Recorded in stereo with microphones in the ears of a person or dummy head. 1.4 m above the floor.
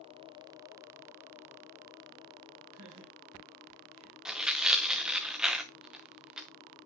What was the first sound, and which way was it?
Laughter, 85° right.